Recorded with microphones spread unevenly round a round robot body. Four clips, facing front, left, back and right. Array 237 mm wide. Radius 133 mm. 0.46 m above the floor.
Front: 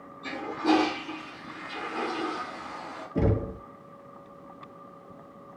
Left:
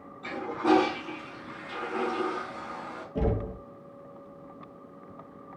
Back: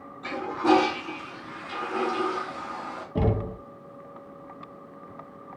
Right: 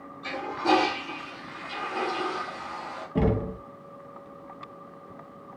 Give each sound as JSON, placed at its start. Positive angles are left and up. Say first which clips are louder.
{"t": 0.2, "sound": "a toilet flushing", "louder": "even, back 3 dB", "azimuth_deg": 160, "distance_m": 4.0}
{"t": 3.1, "sound": "knocking", "louder": "right 4 dB, even", "azimuth_deg": -120, "distance_m": 2.5}